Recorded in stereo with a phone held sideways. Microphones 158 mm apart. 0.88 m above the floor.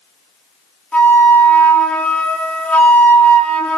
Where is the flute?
10° left (ahead or behind), 1.3 m.